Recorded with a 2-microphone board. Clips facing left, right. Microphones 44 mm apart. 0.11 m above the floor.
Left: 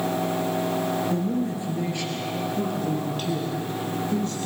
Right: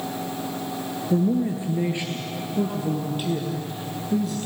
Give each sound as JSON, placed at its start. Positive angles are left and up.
{"t": 1.1, "sound": "a man speaking", "side_deg": -25, "distance_m": 1.9}